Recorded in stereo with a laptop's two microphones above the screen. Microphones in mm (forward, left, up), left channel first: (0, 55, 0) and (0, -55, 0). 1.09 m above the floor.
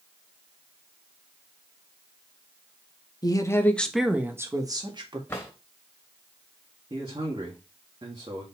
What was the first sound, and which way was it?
A woman speaking, 40° left (ahead or behind).